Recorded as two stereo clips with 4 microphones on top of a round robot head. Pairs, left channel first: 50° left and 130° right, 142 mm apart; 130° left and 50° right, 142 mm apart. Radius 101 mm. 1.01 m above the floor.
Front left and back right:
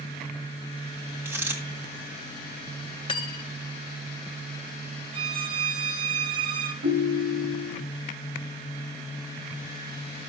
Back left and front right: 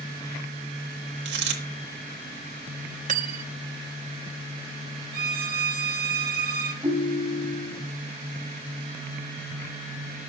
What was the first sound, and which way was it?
A dropped coin, 55° right.